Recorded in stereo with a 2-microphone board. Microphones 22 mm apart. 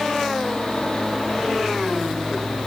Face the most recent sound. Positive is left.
No sound to turn to.